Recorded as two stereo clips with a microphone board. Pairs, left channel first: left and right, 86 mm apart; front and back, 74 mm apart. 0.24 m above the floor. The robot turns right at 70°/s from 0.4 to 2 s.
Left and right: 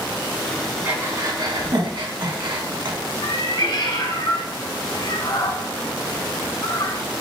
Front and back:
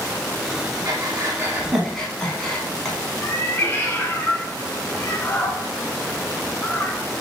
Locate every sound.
0.8 s breathing: 160° right, 1.0 m; by 3.0 s 80° right, 1.0 m
3.2 s a cat meowing: 60° left, 0.7 m